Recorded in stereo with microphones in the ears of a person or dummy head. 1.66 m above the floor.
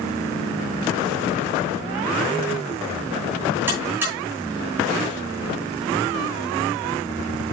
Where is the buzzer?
10° right (ahead or behind), 10 m.